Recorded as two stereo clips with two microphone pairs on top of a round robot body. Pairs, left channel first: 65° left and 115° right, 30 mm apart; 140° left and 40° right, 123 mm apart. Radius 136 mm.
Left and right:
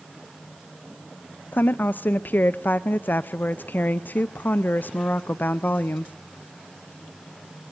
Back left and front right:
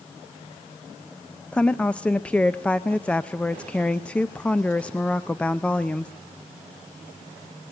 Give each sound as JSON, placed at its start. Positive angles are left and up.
{"t": 1.5, "sound": "a woman speaking", "azimuth_deg": 60, "distance_m": 0.6}